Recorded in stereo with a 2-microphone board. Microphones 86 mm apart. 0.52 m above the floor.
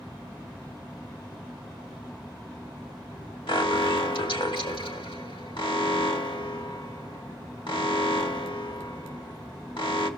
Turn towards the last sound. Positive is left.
turn(degrees=75)  # may be behind; listen again after turning